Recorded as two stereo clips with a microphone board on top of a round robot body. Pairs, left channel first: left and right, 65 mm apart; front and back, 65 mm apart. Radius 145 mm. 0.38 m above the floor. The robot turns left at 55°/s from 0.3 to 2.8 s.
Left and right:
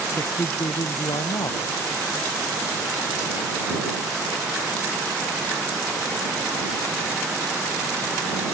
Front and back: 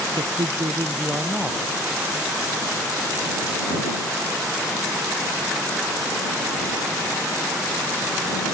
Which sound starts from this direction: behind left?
A man speaking, at 0.2 s.